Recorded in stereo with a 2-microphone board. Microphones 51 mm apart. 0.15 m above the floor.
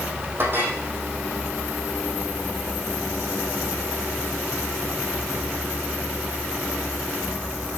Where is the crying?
I don't hear crying.